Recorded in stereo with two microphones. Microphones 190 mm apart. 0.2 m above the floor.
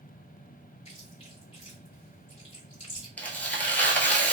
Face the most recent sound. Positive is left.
turn(degrees=10)  # may be behind; listen again after turning